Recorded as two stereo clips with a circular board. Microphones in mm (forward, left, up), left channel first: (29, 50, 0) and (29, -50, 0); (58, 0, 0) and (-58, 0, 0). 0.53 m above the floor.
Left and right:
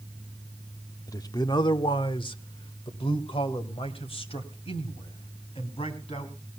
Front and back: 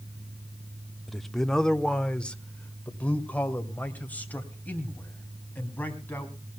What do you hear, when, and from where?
1.1 s a man speaking: 90° left, 0.8 m; by 6.5 s 75° left, 3.5 m